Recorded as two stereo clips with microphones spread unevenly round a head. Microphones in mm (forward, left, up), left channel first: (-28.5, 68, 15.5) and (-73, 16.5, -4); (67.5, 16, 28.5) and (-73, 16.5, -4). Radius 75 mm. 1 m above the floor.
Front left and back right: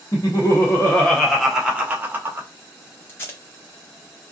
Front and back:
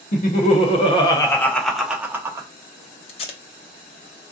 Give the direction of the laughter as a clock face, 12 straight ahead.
12 o'clock.